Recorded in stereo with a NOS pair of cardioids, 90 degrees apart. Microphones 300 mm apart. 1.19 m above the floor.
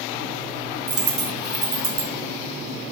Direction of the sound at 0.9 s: 50° right.